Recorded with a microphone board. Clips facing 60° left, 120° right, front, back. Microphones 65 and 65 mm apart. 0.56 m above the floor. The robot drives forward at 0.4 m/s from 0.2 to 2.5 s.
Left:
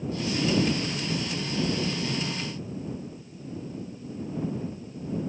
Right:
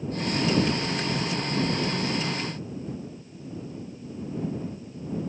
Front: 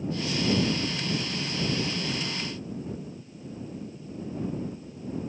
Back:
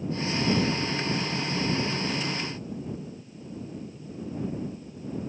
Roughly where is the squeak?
I don't hear a squeak.